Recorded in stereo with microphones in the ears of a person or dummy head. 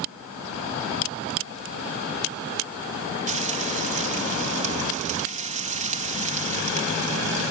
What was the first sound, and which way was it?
Frying, 40° right (ahead or behind).